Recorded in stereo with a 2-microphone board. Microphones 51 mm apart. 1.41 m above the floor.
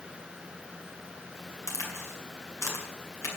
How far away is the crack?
About 6 m.